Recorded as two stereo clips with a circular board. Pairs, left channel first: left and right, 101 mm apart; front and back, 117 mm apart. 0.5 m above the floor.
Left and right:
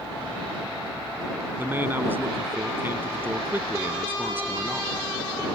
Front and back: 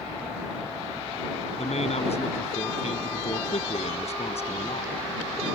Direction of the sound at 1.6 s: 20° right.